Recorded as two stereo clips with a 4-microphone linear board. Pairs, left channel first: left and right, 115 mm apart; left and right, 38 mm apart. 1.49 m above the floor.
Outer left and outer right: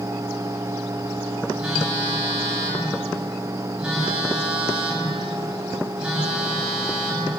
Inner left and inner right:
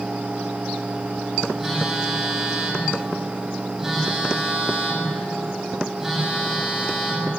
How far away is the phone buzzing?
About 9.5 m.